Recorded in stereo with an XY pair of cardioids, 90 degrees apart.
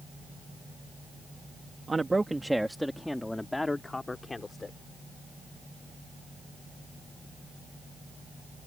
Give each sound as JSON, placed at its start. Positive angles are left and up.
{"t": 1.9, "sound": "a man speaking", "azimuth_deg": -30}